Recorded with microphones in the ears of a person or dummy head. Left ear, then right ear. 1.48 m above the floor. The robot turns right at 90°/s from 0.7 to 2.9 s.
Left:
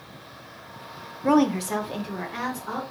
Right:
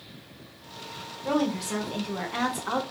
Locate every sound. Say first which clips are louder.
1.2 s a woman speaking: left 6 dB; 110° left, 0.5 m; by 2.8 s 105° right, 0.5 m